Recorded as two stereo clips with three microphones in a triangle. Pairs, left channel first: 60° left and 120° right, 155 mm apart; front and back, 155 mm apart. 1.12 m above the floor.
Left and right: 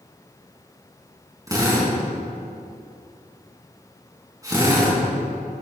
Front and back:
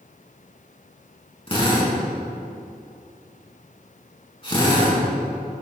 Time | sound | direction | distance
1.5 | a drill | 55° right | 4.5 m